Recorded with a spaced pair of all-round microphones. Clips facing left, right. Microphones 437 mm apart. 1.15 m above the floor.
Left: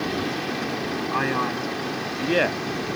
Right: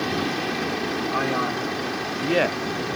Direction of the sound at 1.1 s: 10° left (ahead or behind).